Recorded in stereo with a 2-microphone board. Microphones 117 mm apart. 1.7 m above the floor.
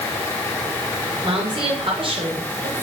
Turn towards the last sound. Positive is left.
turn(degrees=-50)  # may be behind; listen again after turning